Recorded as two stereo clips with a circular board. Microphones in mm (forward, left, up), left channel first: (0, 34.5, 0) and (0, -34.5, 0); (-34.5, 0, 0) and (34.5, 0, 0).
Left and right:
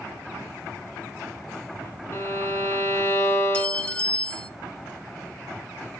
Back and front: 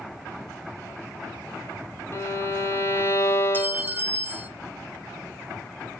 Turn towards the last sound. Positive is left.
turn(degrees=30)